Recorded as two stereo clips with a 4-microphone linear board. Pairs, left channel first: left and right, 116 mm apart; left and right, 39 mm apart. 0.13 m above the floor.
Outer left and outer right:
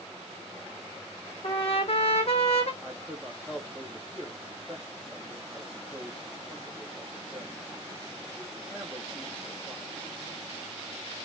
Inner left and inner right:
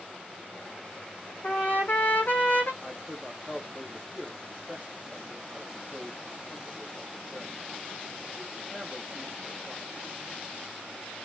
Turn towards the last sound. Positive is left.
turn(degrees=-5)  # may be behind; listen again after turning